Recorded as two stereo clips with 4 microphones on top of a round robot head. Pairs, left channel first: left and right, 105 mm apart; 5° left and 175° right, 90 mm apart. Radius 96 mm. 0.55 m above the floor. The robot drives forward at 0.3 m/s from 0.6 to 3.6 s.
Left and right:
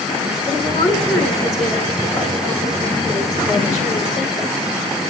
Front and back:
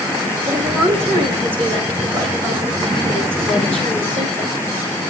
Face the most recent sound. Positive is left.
turn(degrees=175)